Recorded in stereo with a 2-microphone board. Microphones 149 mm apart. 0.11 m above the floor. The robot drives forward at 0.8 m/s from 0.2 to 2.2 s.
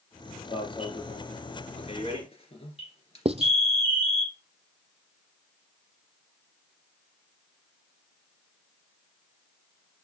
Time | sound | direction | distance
0.5 | an alarm | 35° left (ahead or behind) | 2.5 m
3.2 | writing | 40° right (ahead or behind) | 0.7 m